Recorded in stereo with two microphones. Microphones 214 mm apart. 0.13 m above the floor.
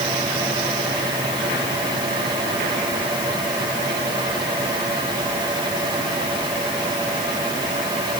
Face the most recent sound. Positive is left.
No sound to turn to.